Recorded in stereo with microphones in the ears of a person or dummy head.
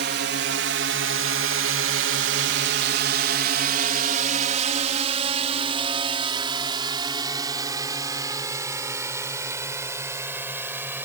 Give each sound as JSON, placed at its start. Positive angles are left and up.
{"t": 0.0, "sound": "a drone", "side_deg": -55}